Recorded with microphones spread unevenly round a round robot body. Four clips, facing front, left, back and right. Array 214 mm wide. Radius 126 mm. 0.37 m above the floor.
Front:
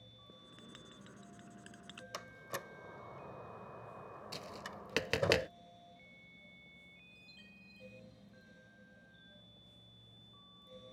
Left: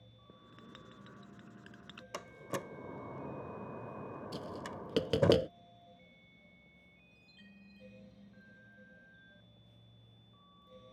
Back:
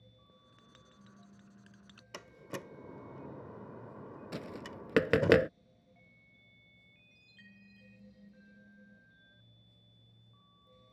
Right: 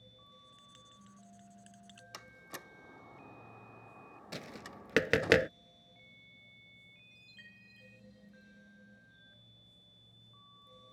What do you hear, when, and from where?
0.3 s writing: 50° left
2.1 s a door slam: 105° left
4.3 s tapping: 175° right
7.1 s a chime: 120° right